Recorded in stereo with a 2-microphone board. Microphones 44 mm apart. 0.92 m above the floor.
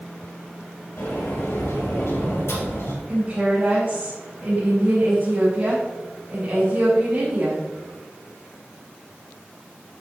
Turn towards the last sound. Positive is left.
turn(degrees=-30)  # may be behind; listen again after turning